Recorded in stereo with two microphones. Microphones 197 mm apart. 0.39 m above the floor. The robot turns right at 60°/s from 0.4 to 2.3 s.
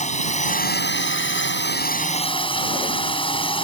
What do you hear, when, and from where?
0.0 s a drone: 40° left; by 3.6 s 155° left